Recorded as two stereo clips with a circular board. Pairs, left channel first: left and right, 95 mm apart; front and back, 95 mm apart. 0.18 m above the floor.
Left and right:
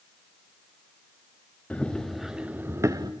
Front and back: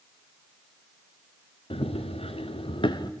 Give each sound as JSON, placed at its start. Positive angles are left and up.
{"t": 1.7, "sound": "running footsteps", "azimuth_deg": 15, "distance_m": 1.8}